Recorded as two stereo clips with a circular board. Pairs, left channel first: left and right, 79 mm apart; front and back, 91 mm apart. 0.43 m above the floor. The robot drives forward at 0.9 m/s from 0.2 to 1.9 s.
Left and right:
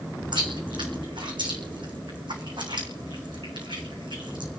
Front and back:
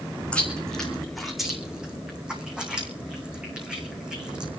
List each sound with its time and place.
0.3 s chewing: 75° right, 4 m; by 4.5 s 100° right, 4 m